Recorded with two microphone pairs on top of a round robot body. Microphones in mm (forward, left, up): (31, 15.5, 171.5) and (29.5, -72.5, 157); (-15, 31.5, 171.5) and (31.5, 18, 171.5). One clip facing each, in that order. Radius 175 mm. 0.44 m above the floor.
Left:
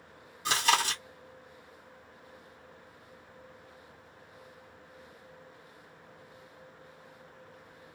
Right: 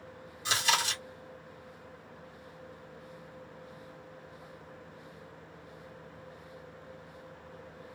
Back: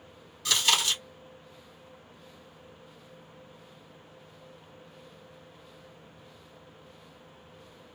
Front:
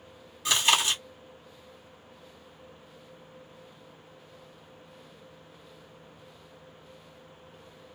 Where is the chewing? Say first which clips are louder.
Left 3 dB, front 2 dB; 50° left, 1.9 m.